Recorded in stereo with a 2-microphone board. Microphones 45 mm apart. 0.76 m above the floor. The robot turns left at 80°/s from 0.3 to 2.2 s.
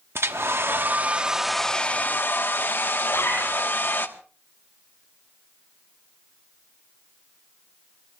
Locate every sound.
0.1 s a hair dryer: 85° right, 1.1 m; by 4.1 s 125° left, 1.1 m
3.1 s a zipper: 70° left (ahead or behind), 7.5 m